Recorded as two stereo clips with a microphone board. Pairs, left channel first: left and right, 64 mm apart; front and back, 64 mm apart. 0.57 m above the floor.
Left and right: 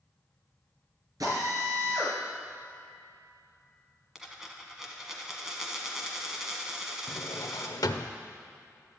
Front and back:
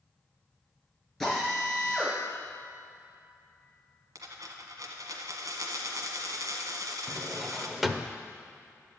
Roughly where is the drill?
Right.